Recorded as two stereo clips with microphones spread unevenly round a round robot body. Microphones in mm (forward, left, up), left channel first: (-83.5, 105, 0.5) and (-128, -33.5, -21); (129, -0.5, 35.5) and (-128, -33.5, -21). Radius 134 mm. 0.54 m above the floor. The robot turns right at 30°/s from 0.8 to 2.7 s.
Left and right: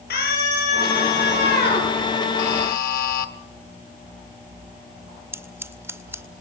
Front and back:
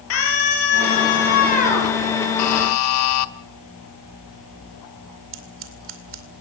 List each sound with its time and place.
0.1 s a scream: 45° left, 10 m; by 1.9 s 80° left, 10 m
2.4 s a buzzer: 40° left, 1.1 m; by 3.3 s 50° left, 1.1 m
5.3 s scissors: 175° right, 2 m